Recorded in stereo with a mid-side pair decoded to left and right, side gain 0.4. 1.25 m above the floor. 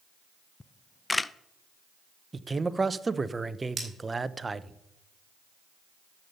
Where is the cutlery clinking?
35° right, 3.5 m.